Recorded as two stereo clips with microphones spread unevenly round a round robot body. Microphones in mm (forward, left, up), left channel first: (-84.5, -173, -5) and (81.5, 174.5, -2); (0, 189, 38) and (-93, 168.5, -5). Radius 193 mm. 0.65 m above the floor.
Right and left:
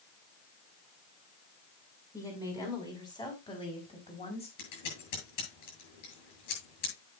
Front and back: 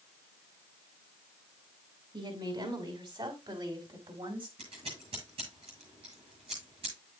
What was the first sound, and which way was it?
A woman speaking, 165° left.